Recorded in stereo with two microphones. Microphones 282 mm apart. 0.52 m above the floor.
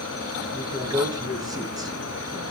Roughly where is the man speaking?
Centre.